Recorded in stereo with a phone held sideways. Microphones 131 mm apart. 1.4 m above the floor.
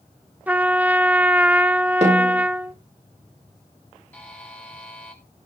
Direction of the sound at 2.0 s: 55° right (ahead or behind).